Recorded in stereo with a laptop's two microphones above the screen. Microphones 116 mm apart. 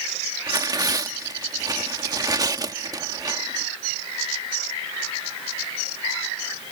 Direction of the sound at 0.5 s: 35° right (ahead or behind).